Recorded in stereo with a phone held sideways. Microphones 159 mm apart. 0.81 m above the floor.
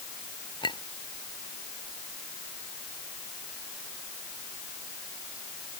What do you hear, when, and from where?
0.6 s a clink: 30° left (ahead or behind)